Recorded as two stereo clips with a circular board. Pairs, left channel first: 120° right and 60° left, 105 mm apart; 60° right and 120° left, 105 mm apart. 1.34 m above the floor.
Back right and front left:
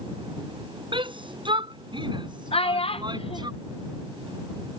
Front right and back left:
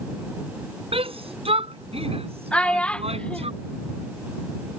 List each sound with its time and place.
0.9 s a shout: 95° left; by 3.5 s 105° left
2.5 s a child speaking: 140° right